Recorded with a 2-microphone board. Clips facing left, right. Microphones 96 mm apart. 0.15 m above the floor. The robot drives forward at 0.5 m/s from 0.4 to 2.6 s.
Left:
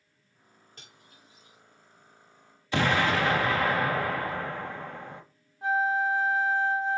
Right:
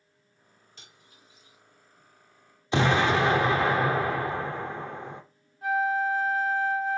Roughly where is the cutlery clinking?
Left.